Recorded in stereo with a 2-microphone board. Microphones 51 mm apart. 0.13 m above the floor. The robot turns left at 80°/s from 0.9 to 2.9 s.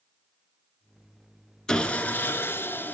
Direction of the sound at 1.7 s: 165° left.